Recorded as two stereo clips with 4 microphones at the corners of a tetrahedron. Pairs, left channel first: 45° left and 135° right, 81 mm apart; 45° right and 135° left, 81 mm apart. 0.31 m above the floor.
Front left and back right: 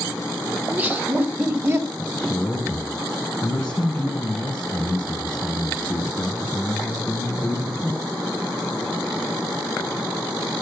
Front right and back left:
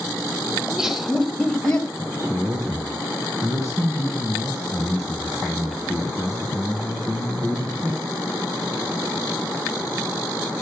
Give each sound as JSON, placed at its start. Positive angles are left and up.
{"t": 0.6, "sound": "laughter", "azimuth_deg": -165, "distance_m": 1.5}
{"t": 2.0, "sound": "a man speaking", "azimuth_deg": 110, "distance_m": 2.5}